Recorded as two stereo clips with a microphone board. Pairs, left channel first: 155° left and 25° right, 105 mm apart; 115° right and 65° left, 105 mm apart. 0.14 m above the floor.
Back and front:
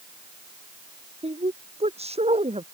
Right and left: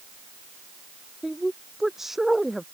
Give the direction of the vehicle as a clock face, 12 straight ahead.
I don't hear a vehicle.